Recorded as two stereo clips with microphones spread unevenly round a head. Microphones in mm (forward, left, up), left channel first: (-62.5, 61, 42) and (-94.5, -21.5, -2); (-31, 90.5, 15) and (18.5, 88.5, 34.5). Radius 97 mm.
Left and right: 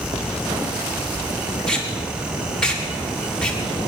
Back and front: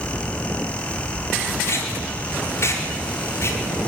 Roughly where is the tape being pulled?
Behind left.